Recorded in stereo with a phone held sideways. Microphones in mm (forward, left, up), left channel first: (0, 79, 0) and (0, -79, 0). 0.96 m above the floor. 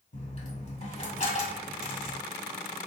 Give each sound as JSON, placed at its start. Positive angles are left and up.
{"t": 0.1, "sound": "a dropped coin", "side_deg": 45, "distance_m": 1.8}